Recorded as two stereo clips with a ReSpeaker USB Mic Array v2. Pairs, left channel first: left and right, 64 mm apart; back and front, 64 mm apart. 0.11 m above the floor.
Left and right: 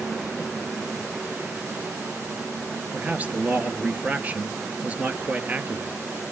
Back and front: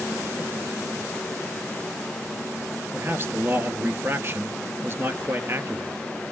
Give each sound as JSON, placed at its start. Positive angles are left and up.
{"t": 2.9, "sound": "a man speaking", "azimuth_deg": -30, "distance_m": 1.5}